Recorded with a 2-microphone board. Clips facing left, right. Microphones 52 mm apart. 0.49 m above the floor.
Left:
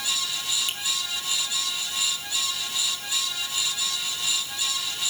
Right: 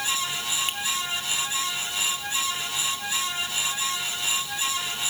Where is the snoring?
I don't hear snoring.